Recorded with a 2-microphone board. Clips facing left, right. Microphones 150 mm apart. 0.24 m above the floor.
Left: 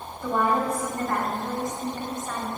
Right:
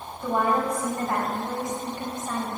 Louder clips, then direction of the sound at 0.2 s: Even; 20° right (ahead or behind).